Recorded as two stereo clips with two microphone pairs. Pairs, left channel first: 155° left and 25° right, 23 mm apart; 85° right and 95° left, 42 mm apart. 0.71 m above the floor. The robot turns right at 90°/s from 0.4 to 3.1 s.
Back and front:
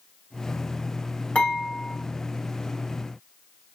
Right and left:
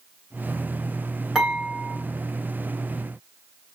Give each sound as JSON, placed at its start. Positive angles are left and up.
{"t": 1.4, "sound": "dishes clattering", "azimuth_deg": 175, "distance_m": 2.0}